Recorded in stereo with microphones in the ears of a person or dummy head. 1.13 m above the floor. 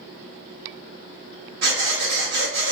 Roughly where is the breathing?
Right.